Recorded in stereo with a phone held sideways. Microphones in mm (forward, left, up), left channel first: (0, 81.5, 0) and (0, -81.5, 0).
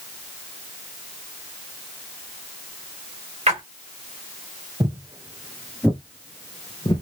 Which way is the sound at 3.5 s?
40° right (ahead or behind).